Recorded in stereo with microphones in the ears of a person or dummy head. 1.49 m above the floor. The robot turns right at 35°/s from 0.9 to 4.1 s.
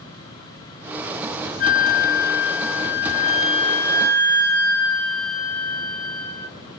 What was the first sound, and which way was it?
A flute, 75° left.